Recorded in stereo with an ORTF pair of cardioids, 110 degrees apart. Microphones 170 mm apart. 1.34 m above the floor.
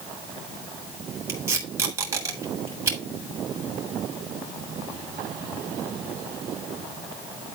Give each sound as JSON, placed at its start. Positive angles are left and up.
{"t": 1.3, "sound": "tape being pulled", "azimuth_deg": -20, "distance_m": 3.5}